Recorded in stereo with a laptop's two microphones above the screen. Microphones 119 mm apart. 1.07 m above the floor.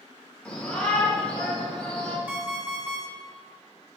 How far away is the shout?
About 1.5 m.